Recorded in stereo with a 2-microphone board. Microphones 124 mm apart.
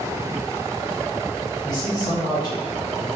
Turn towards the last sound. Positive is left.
turn(degrees=30)  # may be behind; listen again after turning